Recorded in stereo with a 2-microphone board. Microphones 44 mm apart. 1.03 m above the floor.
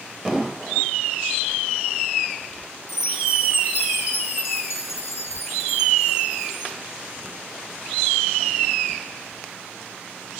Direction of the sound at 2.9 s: 85° left.